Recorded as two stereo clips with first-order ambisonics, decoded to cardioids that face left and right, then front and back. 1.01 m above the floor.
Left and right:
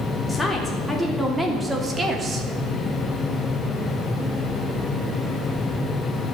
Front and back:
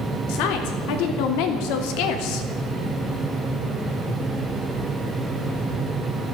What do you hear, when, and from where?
0.3 s a woman speaking: 5° left, 3.5 m; by 2.5 s 25° right, 2 m